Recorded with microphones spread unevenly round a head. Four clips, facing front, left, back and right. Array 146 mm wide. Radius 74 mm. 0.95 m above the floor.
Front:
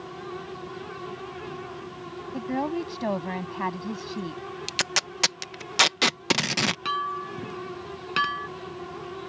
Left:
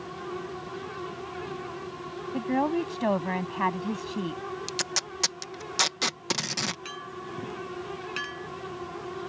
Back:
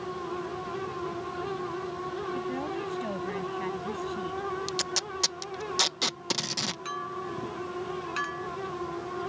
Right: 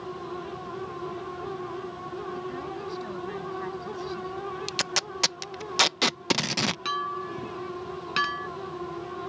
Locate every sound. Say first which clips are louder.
2.3 s a woman speaking: left 8 dB, front 4 dB; 65° left
4.7 s tape being pulled: right 2 dB, front 1 dB; 35° right
6.8 s a clink: right 8 dB, front 5 dB; 30° right